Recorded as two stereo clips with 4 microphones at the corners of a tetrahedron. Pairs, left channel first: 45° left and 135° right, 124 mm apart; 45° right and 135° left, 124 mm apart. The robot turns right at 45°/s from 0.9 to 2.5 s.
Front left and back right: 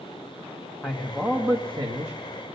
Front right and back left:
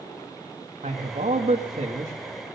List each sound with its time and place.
0.8 s a man speaking: 130° left, 1.4 m; by 2.1 s 175° right, 1.4 m